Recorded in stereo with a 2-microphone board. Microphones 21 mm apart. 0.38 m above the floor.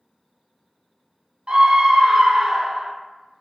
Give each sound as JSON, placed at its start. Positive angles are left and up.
{"t": 1.5, "sound": "a scream", "side_deg": -60, "distance_m": 2.0}